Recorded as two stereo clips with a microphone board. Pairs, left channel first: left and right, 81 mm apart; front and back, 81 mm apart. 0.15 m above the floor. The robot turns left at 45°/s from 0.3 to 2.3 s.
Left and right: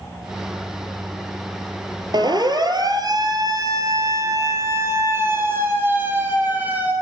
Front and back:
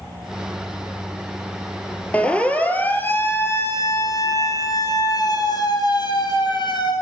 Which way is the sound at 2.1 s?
70° right.